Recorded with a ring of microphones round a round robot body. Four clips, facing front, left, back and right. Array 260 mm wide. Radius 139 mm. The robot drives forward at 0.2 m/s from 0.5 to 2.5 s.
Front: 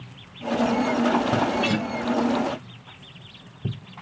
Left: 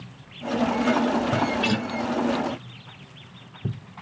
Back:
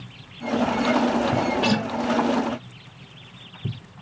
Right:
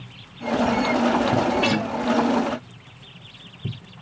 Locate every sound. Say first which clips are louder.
1.6 s a guitar: right 3 dB, back 2 dB; 155° right, 2 m; by 1.9 s 160° right, 2.5 m